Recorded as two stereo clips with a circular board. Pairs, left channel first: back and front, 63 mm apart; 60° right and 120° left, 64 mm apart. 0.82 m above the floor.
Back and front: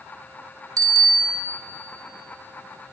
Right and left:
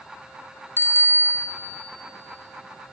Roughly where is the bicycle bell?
Ahead.